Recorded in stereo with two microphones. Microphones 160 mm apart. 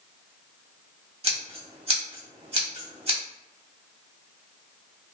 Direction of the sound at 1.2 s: 40° right (ahead or behind).